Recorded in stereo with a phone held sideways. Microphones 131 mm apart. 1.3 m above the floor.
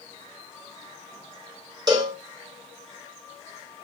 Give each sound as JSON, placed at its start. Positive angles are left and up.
{"t": 1.9, "sound": "a cowbell", "side_deg": -30, "distance_m": 2.0}